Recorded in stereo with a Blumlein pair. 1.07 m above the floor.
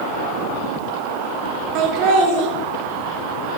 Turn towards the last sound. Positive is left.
turn(degrees=-40)